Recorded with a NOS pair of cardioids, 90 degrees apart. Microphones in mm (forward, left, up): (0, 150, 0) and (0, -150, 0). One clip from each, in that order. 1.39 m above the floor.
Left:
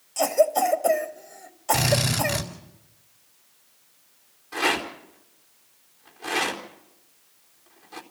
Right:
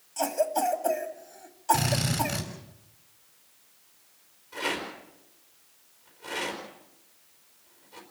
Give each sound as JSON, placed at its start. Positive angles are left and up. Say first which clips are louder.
{"t": 0.2, "sound": "a cough", "louder": "left 6 dB", "azimuth_deg": 40, "distance_m": 2.0}
{"t": 1.7, "sound": "a drill", "louder": "left 5 dB", "azimuth_deg": 65, "distance_m": 4.0}
{"t": 4.5, "sound": "a rattle", "louder": "left 7 dB", "azimuth_deg": 65, "distance_m": 4.0}